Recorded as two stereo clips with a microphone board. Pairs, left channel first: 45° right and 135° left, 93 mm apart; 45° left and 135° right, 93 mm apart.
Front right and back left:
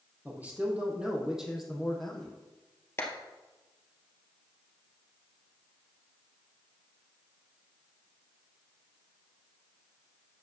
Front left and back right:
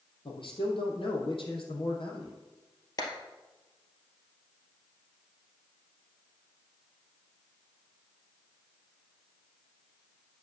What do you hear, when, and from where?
0.2 s a man speaking: 65° left, 3 m; by 2.3 s 40° left, 3 m
3.0 s a clap: 10° left, 2 m